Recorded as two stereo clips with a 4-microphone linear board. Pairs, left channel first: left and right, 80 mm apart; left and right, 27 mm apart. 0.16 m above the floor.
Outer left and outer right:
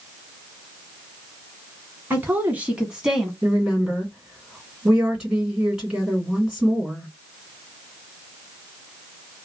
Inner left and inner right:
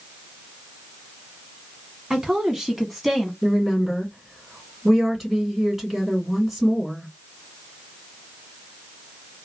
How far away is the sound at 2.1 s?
About 1.3 m.